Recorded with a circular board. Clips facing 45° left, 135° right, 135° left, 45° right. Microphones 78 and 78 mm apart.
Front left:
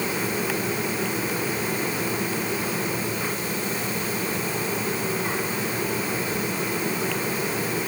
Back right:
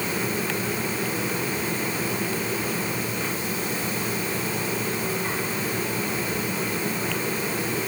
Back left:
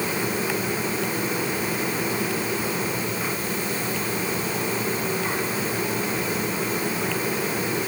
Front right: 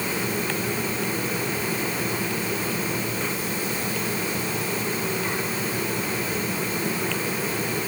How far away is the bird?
No bird in this recording.